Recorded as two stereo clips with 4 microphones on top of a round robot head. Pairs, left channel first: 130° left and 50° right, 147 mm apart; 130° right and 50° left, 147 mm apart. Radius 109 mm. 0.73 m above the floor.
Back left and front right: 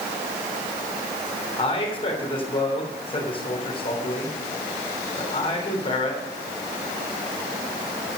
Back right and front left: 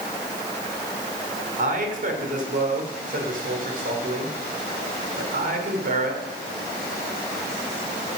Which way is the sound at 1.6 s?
80° left.